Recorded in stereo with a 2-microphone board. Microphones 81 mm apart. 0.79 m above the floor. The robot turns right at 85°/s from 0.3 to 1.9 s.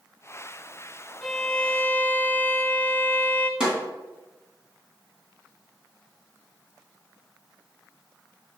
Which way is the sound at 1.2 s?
5° left (ahead or behind).